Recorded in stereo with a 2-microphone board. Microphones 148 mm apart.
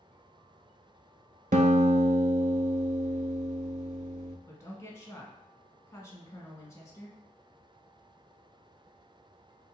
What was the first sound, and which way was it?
A guitar, 65° right (ahead or behind).